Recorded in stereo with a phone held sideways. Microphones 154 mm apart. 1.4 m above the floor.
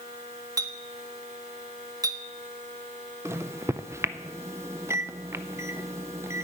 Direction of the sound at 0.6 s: 25° right (ahead or behind).